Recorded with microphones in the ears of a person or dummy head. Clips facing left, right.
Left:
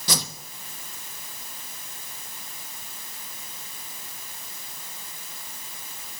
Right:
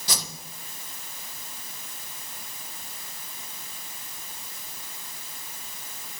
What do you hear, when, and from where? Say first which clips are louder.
0.1 s a whoosh: left 5 dB; 55° left (ahead or behind), 0.8 m